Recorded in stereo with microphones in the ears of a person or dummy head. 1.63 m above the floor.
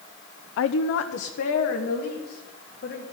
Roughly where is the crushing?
I don't hear crushing.